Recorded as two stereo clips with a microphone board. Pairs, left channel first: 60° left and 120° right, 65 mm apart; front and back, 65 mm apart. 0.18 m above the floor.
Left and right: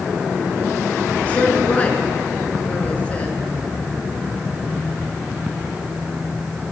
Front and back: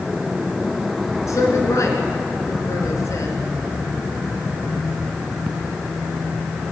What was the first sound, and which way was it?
A woman speaking, 5° right.